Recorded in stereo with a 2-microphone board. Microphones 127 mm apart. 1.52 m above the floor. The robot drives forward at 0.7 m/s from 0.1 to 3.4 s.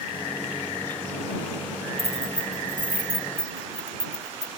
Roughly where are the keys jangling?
Left.